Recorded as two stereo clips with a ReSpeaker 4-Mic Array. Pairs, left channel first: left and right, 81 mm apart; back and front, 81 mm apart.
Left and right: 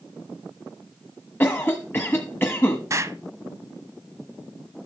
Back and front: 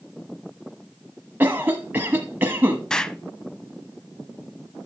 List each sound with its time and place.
1.4 s a cough: 45° left, 1.2 m
2.9 s an explosion: 105° right, 0.5 m